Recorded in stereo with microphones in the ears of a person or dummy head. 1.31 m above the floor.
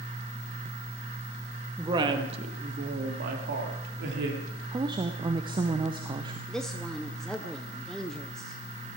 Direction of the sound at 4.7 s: 20° right (ahead or behind).